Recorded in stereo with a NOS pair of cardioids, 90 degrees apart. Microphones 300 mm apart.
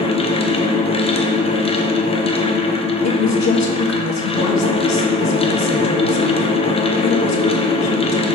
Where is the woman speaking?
65° left, 1.4 m.